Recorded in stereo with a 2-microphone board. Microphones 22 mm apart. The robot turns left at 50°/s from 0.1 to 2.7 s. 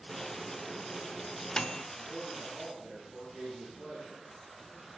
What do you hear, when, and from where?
0.1 s a microwave: 30° right (ahead or behind), 0.6 m; by 1.8 s 45° left (ahead or behind), 0.6 m
1.9 s a man speaking: 20° right, 8.5 m; by 4.2 s 55° right, 8.5 m